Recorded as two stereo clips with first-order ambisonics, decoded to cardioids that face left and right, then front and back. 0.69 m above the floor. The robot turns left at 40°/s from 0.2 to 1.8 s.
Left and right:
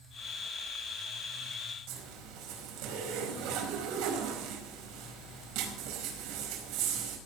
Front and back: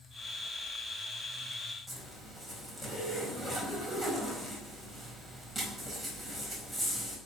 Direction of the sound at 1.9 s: 90° right.